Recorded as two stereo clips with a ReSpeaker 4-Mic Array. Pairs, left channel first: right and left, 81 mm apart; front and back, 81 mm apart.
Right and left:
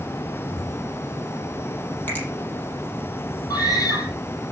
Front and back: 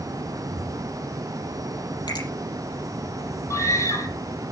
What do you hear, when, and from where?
2.1 s a finger snap: 25° right, 5 m
3.5 s a scream: 50° right, 4.5 m